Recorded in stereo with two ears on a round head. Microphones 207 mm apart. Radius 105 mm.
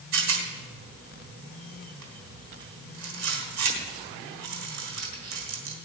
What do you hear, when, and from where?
0.1 s a rattle: 85° right, 3 m